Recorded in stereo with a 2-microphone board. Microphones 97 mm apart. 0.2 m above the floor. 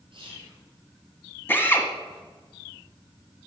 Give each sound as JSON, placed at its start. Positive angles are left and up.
{"t": 0.1, "sound": "whispering", "side_deg": -60, "distance_m": 4.0}
{"t": 1.5, "sound": "a drill", "side_deg": 25, "distance_m": 1.3}